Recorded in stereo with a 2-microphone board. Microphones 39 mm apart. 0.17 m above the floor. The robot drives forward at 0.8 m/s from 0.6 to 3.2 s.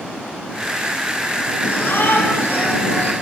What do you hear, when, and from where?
1.6 s a shout: 70° left (ahead or behind), 4 m; by 3.1 s 75° left (ahead or behind), 4 m